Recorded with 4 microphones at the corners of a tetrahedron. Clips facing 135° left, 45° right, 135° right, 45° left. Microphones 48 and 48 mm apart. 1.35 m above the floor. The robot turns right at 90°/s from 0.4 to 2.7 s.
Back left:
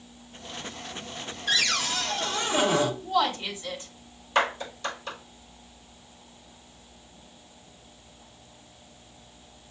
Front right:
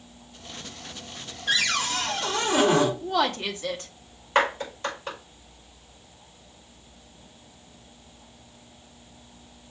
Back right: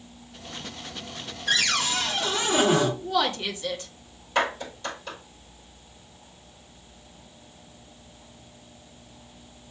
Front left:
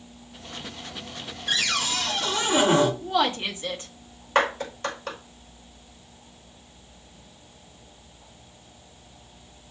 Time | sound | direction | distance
1.5 | a cupboard door | 125° right | 3.5 m
3.0 | a woman speaking | 20° right | 2 m
4.3 | a clap | 10° left | 5.5 m